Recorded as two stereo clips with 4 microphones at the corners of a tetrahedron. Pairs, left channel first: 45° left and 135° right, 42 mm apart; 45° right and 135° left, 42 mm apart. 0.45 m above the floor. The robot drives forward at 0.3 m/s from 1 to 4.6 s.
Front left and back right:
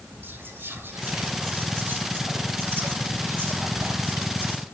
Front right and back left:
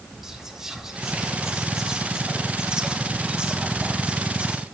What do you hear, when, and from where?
0.2 s whispering: 150° right, 2.5 m; by 4.6 s 160° right, 3 m